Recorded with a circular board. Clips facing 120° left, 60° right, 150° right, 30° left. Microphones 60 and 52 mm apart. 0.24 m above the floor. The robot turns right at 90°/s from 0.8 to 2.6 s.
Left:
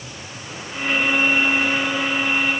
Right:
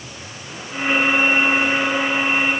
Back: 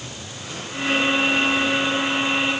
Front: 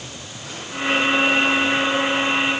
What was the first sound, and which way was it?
Only background noise.